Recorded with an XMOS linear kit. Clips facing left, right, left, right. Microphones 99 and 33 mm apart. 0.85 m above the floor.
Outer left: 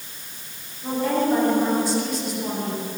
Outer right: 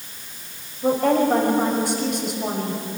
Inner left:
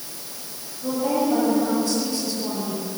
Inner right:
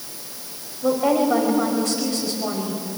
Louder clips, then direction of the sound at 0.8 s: Outer right 4 dB, inner right 4 dB; 65° right (ahead or behind).